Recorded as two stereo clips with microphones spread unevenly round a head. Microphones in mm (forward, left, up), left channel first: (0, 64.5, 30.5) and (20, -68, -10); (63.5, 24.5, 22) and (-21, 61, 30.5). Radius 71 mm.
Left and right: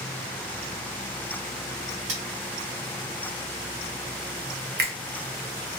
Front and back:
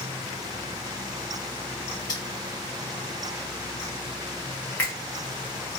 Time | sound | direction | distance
2.1 | cutlery clinking | 90° right | 1.4 m
4.8 | a finger snap | 105° right | 0.8 m